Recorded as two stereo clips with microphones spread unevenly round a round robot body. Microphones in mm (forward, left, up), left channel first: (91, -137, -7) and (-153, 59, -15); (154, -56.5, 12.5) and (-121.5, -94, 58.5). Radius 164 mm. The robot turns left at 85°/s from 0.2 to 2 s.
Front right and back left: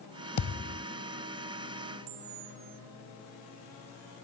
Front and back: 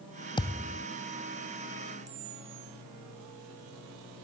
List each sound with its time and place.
0.4 s a thud: 70° right; by 0.8 s 110° right
2.1 s a camera shutter: 140° left